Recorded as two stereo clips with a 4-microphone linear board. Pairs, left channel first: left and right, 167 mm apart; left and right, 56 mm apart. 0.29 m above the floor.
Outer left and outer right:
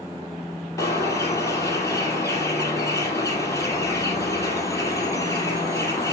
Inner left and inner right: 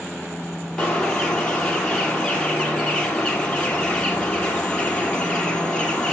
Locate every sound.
0.8 s a bird: 20° left (ahead or behind), 3 m